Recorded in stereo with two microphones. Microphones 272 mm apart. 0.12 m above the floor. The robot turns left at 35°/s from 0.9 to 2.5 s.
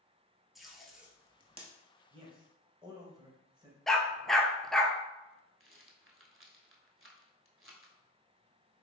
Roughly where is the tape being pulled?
Centre.